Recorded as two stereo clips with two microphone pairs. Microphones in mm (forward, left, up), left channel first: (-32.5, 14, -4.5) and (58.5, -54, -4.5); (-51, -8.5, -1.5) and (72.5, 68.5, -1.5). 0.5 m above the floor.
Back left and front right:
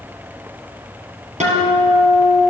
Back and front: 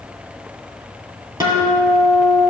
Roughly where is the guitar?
Ahead right.